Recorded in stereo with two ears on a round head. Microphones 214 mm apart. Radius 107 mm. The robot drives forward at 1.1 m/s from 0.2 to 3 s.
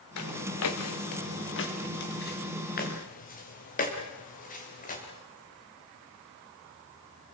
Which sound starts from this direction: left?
Footsteps, at 0.2 s.